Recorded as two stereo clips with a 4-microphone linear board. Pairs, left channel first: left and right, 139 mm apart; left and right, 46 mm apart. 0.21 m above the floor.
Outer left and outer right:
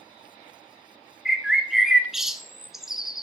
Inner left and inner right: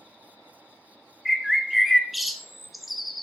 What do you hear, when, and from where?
1.2 s a bird: centre (ahead or behind), 0.6 m